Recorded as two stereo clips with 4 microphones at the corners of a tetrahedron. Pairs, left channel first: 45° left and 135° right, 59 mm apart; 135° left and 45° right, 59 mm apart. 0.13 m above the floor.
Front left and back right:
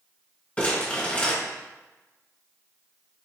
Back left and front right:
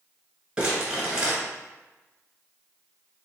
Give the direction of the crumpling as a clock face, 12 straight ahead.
11 o'clock.